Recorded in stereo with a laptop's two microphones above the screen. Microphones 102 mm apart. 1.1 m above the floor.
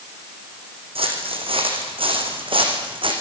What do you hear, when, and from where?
0.9 s footsteps: 75° right (ahead or behind), 4 m; by 3.1 s 65° right (ahead or behind), 4.5 m